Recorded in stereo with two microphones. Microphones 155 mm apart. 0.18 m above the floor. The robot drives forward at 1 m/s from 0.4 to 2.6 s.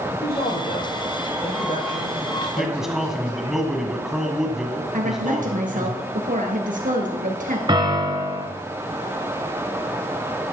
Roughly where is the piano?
Right.